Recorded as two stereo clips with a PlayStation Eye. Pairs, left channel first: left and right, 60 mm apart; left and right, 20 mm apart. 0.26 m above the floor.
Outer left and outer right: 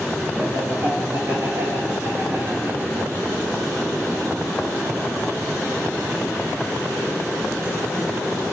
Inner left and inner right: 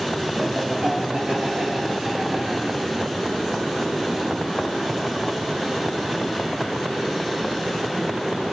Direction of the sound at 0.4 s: 50° right (ahead or behind).